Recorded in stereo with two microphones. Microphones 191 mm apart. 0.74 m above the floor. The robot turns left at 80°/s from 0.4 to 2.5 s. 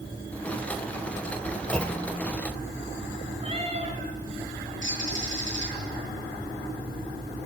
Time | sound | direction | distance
1.7 | a clunk | 175° left | 1.6 m
3.4 | a cat meowing | 35° right (ahead or behind) | 3.5 m
4.8 | a bird | 80° left | 9.5 m